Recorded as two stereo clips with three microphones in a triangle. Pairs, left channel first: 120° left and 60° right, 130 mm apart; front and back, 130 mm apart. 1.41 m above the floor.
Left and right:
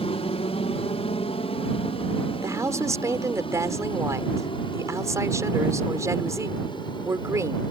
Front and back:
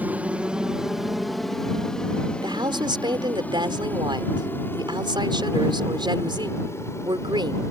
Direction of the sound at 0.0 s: 105° left.